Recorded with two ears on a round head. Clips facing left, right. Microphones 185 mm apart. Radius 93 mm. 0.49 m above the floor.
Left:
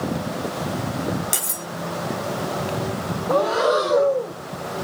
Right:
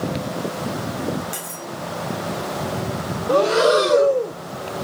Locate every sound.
1.3 s cutlery clinking: 50° left (ahead or behind), 0.9 m
3.3 s breathing: 30° right (ahead or behind), 0.6 m